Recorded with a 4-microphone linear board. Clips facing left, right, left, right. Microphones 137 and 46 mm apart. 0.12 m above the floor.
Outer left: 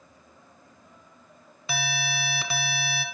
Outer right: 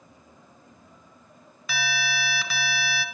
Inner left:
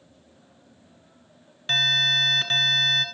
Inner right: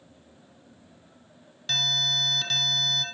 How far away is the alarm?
About 2 m.